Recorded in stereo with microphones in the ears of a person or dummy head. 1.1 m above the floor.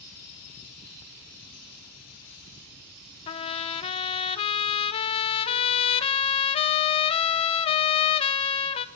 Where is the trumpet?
20° left (ahead or behind), 0.6 m.